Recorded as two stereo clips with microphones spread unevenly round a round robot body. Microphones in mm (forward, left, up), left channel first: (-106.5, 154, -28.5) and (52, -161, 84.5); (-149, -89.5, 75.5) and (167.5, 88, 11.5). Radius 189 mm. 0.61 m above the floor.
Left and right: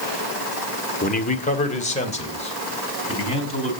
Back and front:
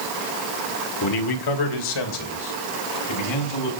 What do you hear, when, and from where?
1.0 s a man speaking: 170° left, 1.4 m; by 3.8 s 170° right, 5.5 m